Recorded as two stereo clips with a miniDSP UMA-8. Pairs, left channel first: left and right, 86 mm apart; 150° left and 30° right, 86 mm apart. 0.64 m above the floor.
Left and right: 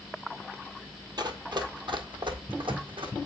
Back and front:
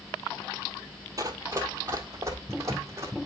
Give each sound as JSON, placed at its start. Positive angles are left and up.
{"t": 1.2, "sound": "running footsteps", "azimuth_deg": -70, "distance_m": 1.1}